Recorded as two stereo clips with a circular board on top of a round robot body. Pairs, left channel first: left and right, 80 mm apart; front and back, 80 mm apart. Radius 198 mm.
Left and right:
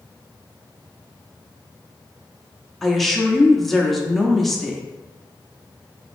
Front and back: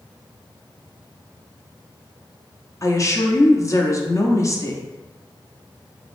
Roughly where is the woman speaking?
Ahead.